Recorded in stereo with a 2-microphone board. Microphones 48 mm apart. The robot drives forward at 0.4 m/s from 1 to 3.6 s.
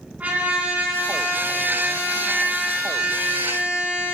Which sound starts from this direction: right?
A trumpet, at 0.2 s.